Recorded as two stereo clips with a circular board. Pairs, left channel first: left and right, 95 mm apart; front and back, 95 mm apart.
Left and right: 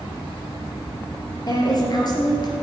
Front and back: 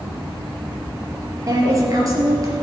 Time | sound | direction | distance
1.5 | a woman speaking | 130° left | 3.5 m